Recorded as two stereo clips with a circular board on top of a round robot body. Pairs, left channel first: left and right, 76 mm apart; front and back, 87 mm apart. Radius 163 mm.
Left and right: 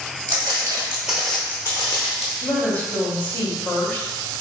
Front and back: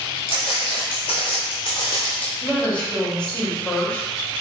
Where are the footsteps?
45° right, 0.9 m; by 2.3 s 75° left, 0.8 m.